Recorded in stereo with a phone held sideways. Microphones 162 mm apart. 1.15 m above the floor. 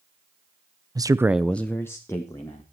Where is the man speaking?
25° right (ahead or behind), 0.6 m; by 2.6 s 20° left (ahead or behind), 1.9 m.